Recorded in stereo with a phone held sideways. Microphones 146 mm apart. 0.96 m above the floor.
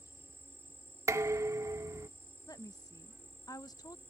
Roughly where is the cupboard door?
I don't hear a cupboard door.